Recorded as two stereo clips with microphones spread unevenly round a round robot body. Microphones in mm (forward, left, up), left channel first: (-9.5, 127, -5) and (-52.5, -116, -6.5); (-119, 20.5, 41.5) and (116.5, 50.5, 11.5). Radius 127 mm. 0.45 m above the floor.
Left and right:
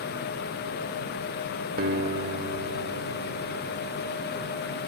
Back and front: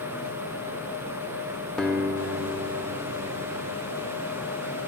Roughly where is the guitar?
Right.